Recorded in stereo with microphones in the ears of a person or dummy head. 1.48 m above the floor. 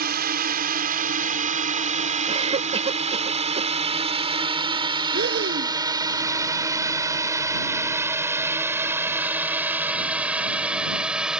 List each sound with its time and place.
0.0 s a drone: 45° right (ahead or behind); by 11.4 s centre (ahead or behind)
2.3 s a cough: 25° right (ahead or behind)
5.1 s breathing: 60° right (ahead or behind)